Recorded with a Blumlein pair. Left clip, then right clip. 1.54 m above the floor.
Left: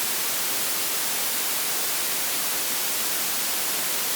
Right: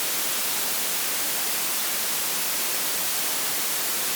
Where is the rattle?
No rattle in this recording.